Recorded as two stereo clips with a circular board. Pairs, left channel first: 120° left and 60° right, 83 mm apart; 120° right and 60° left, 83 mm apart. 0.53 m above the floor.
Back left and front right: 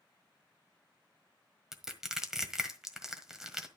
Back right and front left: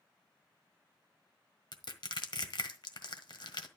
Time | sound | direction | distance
1.7 | crushing | 145° right | 1.5 m